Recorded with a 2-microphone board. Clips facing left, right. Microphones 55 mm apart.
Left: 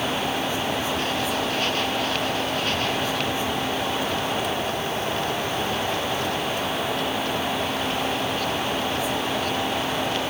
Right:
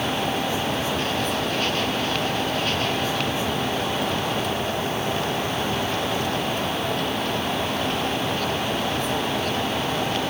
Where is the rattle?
I don't hear a rattle.